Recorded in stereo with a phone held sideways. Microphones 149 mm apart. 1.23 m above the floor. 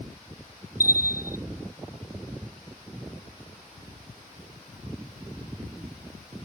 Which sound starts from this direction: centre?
A bell, at 0.8 s.